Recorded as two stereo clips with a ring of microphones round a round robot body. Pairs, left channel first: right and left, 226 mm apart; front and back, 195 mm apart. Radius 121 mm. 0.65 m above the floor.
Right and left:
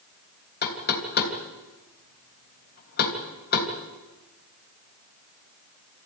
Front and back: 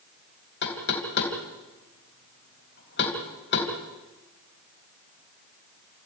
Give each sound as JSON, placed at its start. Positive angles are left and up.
{"t": 0.6, "sound": "knocking", "azimuth_deg": -40, "distance_m": 3.0}